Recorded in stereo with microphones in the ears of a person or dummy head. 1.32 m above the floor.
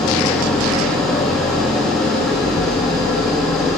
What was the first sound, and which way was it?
An engine running, centre (ahead or behind).